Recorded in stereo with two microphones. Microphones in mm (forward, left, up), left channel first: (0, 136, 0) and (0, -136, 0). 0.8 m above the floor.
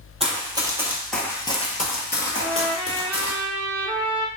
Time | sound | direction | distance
0.2 | running footsteps | 20° right (ahead or behind) | 1.2 m
2.3 | a trumpet | 10° right (ahead or behind) | 0.7 m